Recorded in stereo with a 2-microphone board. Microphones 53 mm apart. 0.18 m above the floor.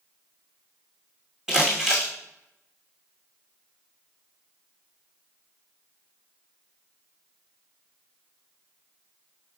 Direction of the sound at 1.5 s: 10° right (ahead or behind).